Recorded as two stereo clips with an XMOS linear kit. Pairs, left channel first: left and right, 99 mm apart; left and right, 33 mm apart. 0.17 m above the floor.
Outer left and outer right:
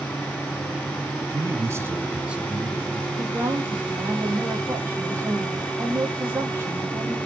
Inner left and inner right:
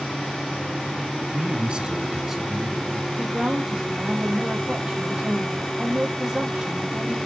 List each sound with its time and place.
1.3 s a man speaking: 35° right (ahead or behind), 1.5 m; by 3.1 s 5° left (ahead or behind), 2.5 m
3.2 s a woman speaking: 30° right (ahead or behind), 6.5 m